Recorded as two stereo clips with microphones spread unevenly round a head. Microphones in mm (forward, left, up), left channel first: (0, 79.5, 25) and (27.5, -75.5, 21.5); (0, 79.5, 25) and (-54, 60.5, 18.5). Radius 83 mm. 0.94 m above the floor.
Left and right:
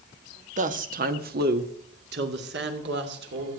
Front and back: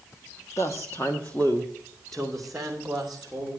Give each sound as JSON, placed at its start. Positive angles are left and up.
{"t": 0.6, "sound": "a woman speaking", "azimuth_deg": -40, "distance_m": 1.3}